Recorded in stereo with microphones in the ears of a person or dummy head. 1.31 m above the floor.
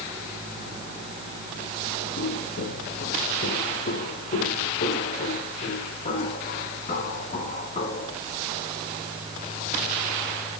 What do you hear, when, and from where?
2.2 s footsteps: 65° left (ahead or behind), 6 m; by 8.2 s 35° left (ahead or behind), 7.5 m